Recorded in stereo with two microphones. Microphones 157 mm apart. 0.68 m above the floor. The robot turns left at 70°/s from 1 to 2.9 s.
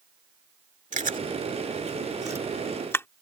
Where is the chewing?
55° right (ahead or behind); by 3.1 s 15° left (ahead or behind).